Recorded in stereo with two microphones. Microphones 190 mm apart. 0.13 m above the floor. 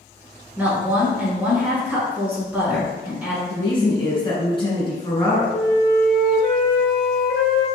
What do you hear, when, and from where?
0.6 s a woman speaking: 10° right (ahead or behind), 1.2 m
3.5 s a woman speaking: 25° left (ahead or behind), 1.2 m
5.5 s a flute: 55° left (ahead or behind), 0.7 m